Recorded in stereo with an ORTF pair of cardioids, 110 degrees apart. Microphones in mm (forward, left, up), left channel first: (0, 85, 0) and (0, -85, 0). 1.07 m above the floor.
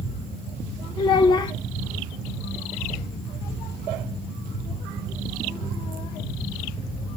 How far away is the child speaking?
About 0.6 m.